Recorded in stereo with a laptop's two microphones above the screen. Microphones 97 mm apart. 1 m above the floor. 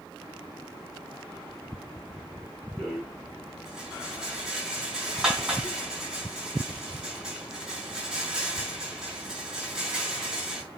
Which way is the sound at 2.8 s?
5° right (ahead or behind).